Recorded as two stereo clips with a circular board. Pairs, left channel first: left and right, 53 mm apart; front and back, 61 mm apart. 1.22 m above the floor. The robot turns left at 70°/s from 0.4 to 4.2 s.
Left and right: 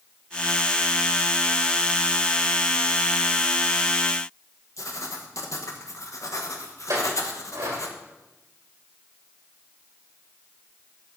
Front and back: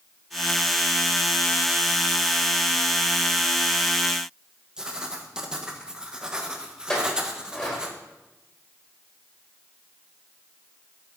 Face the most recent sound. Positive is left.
turn(degrees=-75)